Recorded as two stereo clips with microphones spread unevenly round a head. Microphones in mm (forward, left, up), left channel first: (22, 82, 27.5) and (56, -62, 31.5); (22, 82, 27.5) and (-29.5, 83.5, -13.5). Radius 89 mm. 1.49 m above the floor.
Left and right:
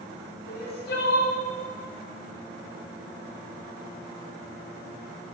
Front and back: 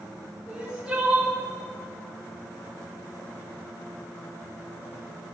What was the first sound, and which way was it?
Crying, 100° left.